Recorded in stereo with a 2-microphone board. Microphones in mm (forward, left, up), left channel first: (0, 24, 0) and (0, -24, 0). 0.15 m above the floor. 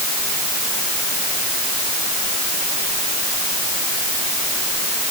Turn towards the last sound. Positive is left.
No sound to turn to.